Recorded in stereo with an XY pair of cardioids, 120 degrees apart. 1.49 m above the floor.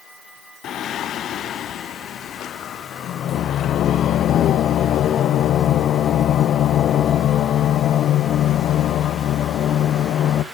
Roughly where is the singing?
Ahead left.